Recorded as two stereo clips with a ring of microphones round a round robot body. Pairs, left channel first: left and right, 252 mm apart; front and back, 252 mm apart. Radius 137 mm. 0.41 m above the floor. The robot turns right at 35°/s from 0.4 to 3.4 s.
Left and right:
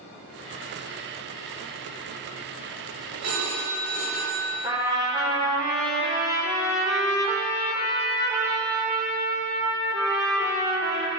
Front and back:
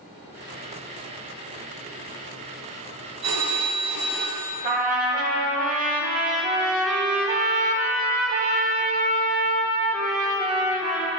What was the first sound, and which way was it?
A phone ringing, 140° right.